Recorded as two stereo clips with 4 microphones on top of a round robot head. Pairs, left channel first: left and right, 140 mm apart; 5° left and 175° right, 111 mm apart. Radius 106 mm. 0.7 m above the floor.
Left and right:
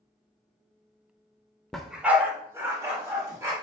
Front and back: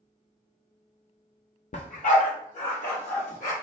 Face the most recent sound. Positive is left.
turn(degrees=-25)